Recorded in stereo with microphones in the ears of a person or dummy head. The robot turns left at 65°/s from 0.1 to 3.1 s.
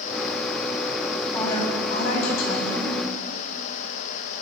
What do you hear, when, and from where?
1.3 s a woman speaking: 170° left, 8.5 m; by 3.0 s 60° left, 8.5 m